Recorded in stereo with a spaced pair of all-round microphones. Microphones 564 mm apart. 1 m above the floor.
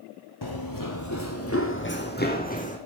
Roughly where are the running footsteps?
Left.